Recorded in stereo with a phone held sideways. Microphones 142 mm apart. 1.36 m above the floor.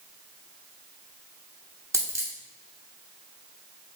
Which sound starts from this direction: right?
A dropped coin, at 1.9 s.